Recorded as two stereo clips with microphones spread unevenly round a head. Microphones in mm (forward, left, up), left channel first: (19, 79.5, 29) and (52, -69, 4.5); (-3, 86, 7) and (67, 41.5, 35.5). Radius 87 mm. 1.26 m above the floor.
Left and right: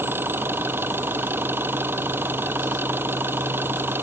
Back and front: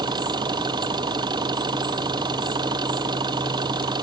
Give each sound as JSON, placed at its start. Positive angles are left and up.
{"t": 0.0, "sound": "an engine running", "azimuth_deg": 0}